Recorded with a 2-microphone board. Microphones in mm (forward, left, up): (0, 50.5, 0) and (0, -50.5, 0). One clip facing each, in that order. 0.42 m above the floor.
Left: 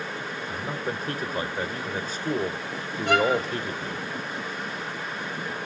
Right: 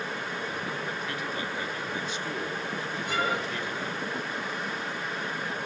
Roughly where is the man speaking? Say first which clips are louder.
Left 3 dB; left.